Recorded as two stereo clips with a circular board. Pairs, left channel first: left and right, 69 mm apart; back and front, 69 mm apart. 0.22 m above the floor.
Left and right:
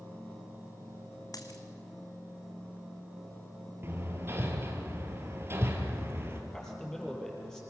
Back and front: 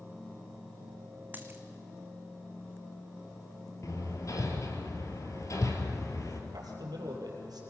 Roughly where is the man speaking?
Ahead.